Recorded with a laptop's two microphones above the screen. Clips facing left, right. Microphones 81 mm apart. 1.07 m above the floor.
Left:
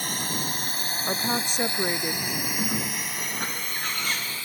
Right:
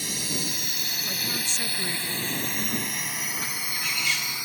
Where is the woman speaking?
50° left (ahead or behind).